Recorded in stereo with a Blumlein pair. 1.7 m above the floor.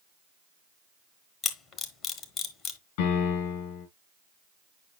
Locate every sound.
1.4 s a camera shutter: 30° left, 1.1 m
3.0 s a piano: 55° left, 6 m